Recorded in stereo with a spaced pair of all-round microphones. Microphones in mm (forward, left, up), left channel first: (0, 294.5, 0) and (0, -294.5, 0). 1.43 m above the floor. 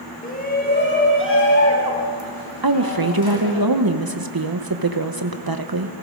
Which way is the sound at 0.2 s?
15° left (ahead or behind).